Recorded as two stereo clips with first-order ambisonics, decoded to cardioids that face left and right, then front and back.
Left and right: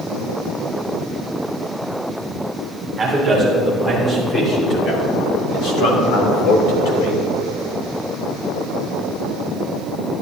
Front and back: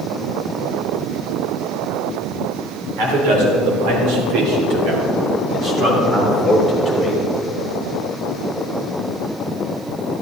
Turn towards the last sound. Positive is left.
turn(degrees=90)